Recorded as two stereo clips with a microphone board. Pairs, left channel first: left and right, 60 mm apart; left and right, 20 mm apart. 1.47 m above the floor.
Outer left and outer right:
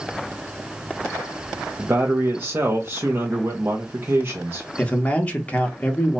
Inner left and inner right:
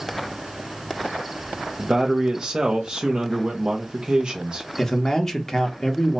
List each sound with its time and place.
1.8 s a man speaking: 40° right (ahead or behind), 0.6 m
4.8 s a man speaking: 25° left (ahead or behind), 1.0 m